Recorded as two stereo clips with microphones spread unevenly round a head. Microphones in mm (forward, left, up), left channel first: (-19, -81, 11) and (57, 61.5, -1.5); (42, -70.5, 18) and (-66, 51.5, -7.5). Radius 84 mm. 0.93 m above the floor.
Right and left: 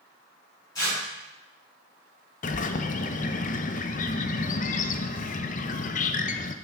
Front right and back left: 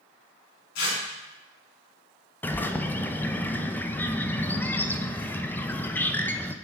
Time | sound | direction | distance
0.8 | tearing paper | 45° right | 4.5 m
2.4 | a bird | 135° right | 0.6 m